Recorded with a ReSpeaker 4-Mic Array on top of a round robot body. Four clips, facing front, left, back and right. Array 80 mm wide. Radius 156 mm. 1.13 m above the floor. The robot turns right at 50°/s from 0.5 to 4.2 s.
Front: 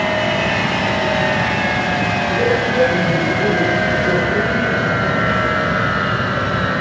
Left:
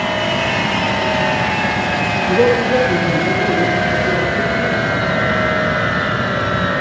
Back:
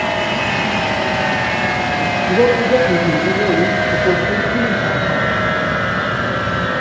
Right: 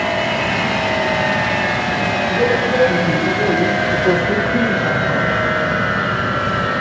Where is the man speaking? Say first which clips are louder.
Left 5 dB, back 6 dB; 145° left, 1.1 m; by 5.3 s 120° right, 1.1 m.